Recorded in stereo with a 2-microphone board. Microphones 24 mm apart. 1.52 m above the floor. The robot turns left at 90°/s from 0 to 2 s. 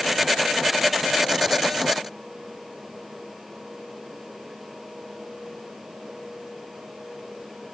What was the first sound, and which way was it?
Only background noise.